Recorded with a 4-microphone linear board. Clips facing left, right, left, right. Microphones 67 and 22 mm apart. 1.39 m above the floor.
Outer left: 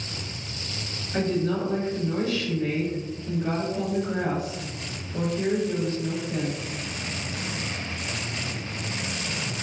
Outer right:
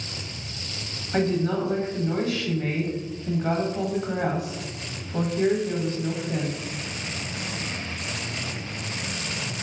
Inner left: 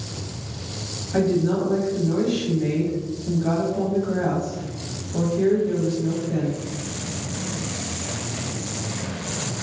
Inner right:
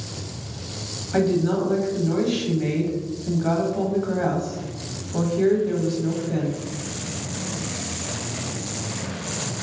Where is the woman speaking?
55° right (ahead or behind), 1.0 m.